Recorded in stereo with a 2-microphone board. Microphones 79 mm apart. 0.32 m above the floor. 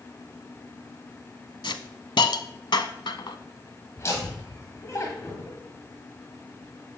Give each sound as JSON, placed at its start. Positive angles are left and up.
{"t": 1.6, "sound": "a hiss", "side_deg": 75, "distance_m": 0.6}
{"t": 4.0, "sound": "laughter", "side_deg": 40, "distance_m": 1.5}